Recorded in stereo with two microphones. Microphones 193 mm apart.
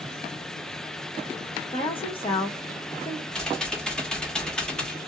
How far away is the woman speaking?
About 1.2 m.